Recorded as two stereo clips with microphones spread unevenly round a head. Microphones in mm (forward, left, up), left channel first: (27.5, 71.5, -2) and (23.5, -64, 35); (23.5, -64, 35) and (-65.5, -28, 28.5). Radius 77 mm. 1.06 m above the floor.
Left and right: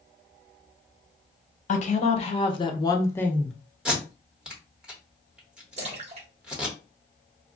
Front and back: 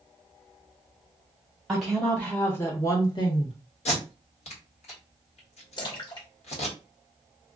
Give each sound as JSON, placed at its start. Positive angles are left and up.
{"t": 1.7, "sound": "a woman speaking", "azimuth_deg": 70, "distance_m": 1.1}
{"t": 3.9, "sound": "tape being pulled", "azimuth_deg": -5, "distance_m": 1.1}
{"t": 5.8, "sound": "a splash", "azimuth_deg": -60, "distance_m": 1.0}